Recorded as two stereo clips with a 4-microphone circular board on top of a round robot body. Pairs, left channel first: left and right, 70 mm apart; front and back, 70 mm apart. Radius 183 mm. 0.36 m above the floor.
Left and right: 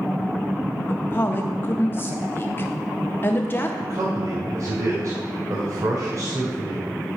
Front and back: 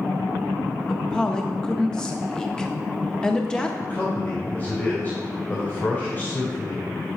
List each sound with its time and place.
0.9 s a woman speaking: 70° left, 0.9 m
3.8 s a man speaking: 55° right, 2.5 m